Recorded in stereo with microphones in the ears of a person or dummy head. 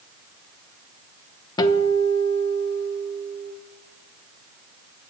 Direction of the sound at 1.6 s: 25° left (ahead or behind).